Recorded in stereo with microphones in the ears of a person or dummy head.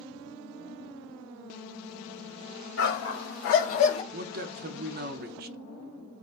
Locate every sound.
2.8 s a dog barking: 70° left (ahead or behind), 1.7 m; by 4.0 s 25° left (ahead or behind), 1.0 m
4.1 s a man speaking: 45° right (ahead or behind), 0.6 m